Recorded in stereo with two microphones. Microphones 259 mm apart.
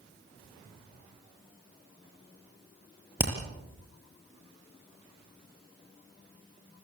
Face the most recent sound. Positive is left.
turn(degrees=-5)  # may be behind; listen again after turning